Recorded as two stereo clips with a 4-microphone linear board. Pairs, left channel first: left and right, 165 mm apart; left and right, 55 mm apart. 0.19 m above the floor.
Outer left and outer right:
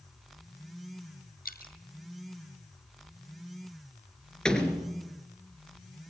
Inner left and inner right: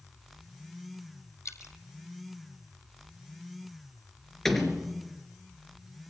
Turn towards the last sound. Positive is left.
turn(degrees=5)  # may be behind; listen again after turning